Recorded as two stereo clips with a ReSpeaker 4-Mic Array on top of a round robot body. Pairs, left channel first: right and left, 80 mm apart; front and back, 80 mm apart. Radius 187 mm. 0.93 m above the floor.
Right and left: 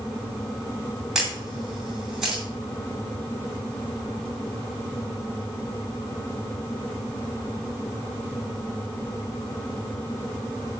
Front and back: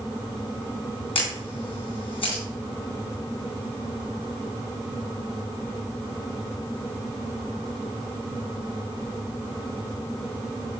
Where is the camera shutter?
5° left, 2 m.